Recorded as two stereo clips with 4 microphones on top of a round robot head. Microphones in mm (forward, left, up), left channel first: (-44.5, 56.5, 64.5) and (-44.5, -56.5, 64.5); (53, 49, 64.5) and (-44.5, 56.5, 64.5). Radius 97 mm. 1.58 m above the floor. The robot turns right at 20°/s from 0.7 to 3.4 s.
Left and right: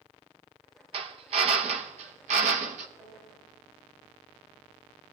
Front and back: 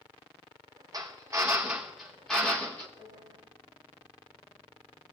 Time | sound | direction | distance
0.9 | a drill | 120° right | 0.6 m
3.0 | a piano | 45° right | 4.5 m